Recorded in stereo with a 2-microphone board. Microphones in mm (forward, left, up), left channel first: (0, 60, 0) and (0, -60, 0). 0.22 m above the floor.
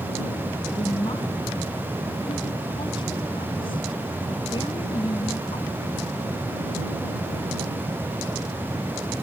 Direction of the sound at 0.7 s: 45° left (ahead or behind).